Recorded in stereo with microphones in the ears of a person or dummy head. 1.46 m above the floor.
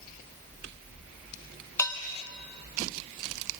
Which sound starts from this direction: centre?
Dishes clattering, at 1.8 s.